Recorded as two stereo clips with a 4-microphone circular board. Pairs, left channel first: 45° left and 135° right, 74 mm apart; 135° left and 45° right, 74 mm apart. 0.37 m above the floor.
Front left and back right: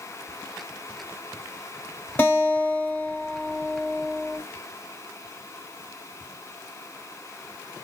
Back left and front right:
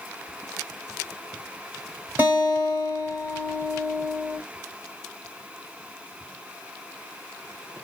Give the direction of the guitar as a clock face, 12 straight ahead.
12 o'clock.